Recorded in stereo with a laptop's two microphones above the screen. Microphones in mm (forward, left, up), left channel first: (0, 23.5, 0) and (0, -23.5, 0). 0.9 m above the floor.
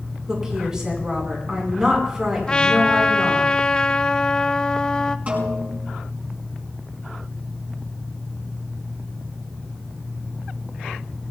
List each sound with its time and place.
0.3 s a woman speaking: 15° right (ahead or behind), 8.5 m
2.5 s a trumpet: 20° left (ahead or behind), 0.8 m
5.3 s a snare drum: 35° right (ahead or behind), 5.5 m